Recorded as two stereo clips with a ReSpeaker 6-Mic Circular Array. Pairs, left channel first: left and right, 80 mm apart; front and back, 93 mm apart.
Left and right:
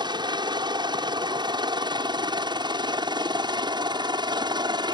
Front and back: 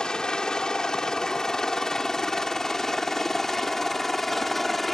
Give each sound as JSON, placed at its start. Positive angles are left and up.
{"t": 0.0, "sound": "a helicopter", "azimuth_deg": -80}